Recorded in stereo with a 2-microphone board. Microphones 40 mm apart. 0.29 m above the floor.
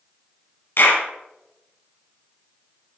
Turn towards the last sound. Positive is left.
turn(degrees=60)  # may be behind; listen again after turning